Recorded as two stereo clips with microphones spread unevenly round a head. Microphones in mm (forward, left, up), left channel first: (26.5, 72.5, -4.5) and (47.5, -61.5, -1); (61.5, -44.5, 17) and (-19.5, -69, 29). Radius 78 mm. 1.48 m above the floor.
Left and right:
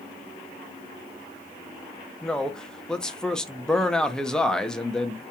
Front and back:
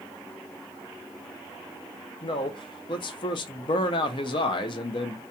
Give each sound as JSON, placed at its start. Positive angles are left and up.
{"t": 2.2, "sound": "a man speaking", "azimuth_deg": 15, "distance_m": 0.5}